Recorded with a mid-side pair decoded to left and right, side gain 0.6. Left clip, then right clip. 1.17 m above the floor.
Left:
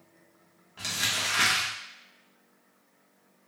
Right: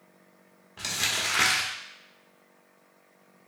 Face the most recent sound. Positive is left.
turn(degrees=-15)